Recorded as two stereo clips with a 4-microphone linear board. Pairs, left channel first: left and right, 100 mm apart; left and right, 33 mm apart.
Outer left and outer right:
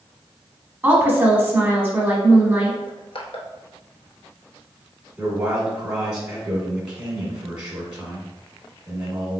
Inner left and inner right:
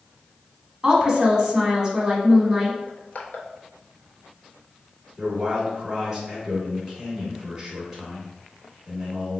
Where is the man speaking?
10° right (ahead or behind), 2.0 m.